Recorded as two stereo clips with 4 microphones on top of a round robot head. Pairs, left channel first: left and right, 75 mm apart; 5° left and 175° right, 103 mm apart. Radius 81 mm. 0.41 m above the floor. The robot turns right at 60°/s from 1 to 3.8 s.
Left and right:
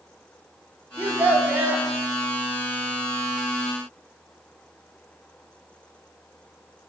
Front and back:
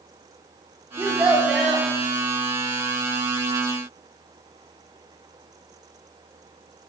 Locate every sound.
1.0 s a child speaking: 125° right, 0.9 m; by 1.9 s 75° right, 0.9 m